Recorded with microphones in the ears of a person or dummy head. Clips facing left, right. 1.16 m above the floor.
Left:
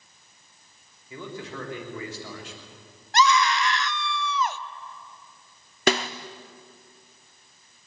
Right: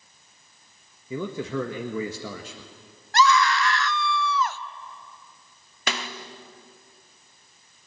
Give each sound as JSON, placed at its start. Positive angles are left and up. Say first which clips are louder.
{"t": 1.1, "sound": "a man speaking", "louder": "right 8 dB", "side_deg": -75, "distance_m": 1.5}
{"t": 3.1, "sound": "a scream", "louder": "right 1 dB", "side_deg": 20, "distance_m": 0.6}
{"t": 5.9, "sound": "a snare drum", "louder": "left 9 dB", "side_deg": 30, "distance_m": 0.8}